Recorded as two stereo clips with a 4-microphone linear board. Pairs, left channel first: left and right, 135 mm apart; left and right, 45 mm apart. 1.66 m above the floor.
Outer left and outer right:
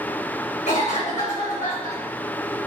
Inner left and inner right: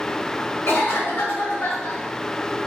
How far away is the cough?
About 1.3 m.